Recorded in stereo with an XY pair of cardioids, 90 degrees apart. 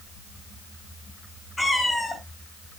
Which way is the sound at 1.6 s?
25° left.